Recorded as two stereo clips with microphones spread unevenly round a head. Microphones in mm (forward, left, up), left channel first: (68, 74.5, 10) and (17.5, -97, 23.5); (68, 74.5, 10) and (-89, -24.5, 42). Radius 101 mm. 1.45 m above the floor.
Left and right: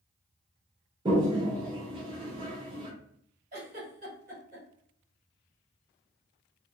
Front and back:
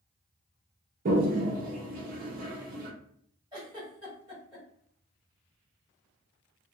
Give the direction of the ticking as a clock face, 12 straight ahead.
No ticking in this recording.